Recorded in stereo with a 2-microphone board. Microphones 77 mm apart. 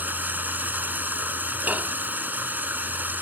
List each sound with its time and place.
0.0 s running water: 20° right (ahead or behind)
1.7 s dishes clattering: 20° right (ahead or behind)